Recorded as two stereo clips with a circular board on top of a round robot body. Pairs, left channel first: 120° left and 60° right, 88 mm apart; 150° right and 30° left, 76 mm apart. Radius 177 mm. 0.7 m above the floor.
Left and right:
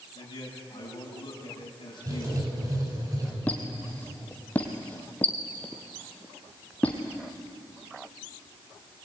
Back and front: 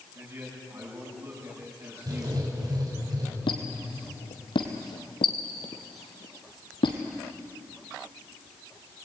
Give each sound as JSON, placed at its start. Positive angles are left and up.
{"t": 0.1, "sound": "a man speaking", "azimuth_deg": 80, "distance_m": 7.5}
{"t": 2.1, "sound": "writing", "azimuth_deg": -5, "distance_m": 7.0}
{"t": 3.5, "sound": "a squeak", "azimuth_deg": -165, "distance_m": 1.4}